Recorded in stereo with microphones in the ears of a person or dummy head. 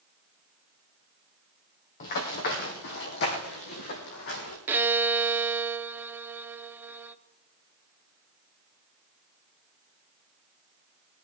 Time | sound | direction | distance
2.0 | running footsteps | 45° left (ahead or behind) | 3 m
4.7 | a violin | 10° right (ahead or behind) | 0.6 m